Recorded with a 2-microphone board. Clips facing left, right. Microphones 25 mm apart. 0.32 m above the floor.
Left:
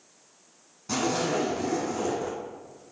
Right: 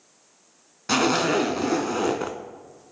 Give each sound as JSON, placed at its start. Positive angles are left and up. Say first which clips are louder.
{"t": 0.9, "sound": "a zipper", "louder": "right 6 dB", "side_deg": -80, "distance_m": 0.6}